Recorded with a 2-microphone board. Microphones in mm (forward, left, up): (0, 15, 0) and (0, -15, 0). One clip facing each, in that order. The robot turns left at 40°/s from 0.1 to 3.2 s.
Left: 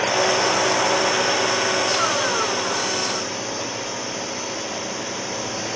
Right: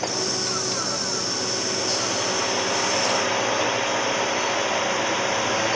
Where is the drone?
95° left; by 5.8 s 30° right.